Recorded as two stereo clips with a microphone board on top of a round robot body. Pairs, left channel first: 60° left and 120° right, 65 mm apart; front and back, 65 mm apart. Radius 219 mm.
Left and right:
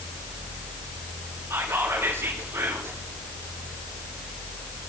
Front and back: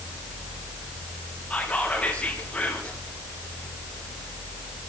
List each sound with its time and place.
1.5 s whispering: 70° right, 9 m